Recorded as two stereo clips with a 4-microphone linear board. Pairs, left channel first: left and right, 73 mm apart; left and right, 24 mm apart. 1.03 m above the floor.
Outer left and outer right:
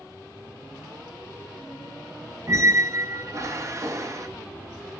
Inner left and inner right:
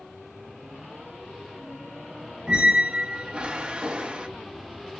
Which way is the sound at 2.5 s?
45° right (ahead or behind).